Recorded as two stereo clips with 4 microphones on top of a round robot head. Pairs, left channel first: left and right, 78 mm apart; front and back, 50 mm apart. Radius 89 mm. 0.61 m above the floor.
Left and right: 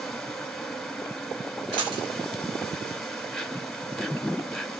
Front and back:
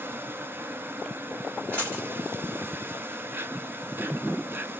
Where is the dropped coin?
70° right, 0.7 m.